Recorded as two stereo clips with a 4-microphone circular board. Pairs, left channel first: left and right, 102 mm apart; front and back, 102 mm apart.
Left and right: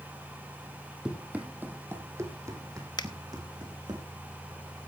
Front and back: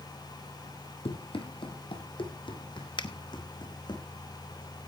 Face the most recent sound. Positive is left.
turn(degrees=45)